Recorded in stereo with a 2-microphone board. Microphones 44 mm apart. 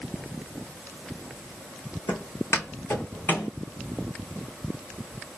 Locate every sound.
2.1 s footsteps: 65° left (ahead or behind), 1.6 m; by 3.5 s 75° left (ahead or behind), 2.5 m